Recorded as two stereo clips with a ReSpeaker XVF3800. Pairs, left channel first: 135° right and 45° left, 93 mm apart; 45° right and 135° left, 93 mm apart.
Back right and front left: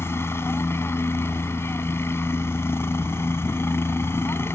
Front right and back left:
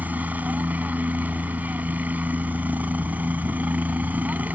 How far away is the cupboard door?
I don't hear a cupboard door.